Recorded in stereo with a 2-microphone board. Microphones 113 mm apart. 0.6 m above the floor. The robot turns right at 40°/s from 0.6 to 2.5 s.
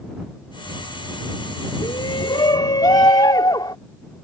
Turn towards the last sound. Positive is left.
turn(degrees=40)  # may be behind; listen again after turning